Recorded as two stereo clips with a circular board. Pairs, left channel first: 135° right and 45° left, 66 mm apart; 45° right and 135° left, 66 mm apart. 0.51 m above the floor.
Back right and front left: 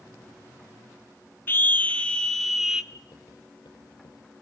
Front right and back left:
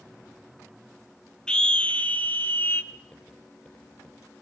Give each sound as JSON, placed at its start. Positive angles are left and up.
{"t": 1.5, "sound": "a scream", "azimuth_deg": -110, "distance_m": 0.9}
{"t": 2.9, "sound": "writing", "azimuth_deg": -115, "distance_m": 8.5}